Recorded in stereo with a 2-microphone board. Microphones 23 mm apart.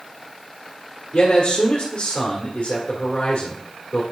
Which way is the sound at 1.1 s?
60° left (ahead or behind).